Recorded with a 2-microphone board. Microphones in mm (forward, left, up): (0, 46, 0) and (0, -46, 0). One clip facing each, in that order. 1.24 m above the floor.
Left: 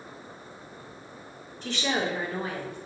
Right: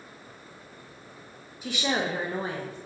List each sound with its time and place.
1.6 s a woman speaking: 10° right (ahead or behind), 1.4 m; by 2.8 s 35° right (ahead or behind), 1.3 m